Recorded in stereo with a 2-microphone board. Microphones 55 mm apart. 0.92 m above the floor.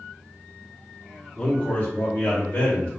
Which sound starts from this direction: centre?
A man speaking, at 1.4 s.